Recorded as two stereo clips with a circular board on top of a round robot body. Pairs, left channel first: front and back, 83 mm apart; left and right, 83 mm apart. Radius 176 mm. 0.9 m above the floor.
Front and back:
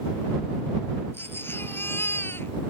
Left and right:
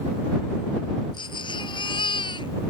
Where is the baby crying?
65° left.